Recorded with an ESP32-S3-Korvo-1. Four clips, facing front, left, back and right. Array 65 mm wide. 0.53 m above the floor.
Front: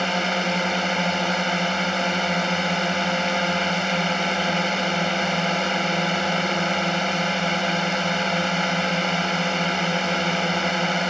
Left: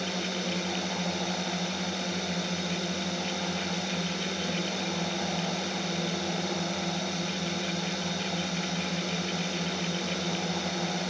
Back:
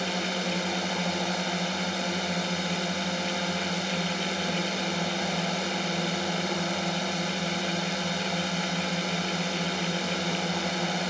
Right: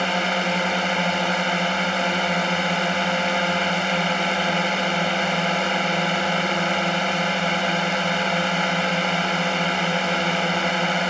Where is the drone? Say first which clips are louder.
Right 11 dB, front 7 dB; 55° right.